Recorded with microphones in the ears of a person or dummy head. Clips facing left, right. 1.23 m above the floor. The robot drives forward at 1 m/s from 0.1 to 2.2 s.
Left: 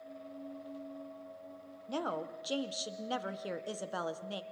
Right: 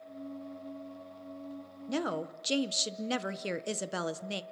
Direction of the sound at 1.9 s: 25° right (ahead or behind).